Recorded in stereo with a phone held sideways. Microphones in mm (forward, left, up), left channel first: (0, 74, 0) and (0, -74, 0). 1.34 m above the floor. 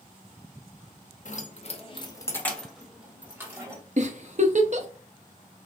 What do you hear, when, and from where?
1.2 s keys jangling: 55° left (ahead or behind), 0.8 m; by 3.8 s 20° right (ahead or behind), 1.3 m
4.0 s a giggle: 55° right (ahead or behind), 0.6 m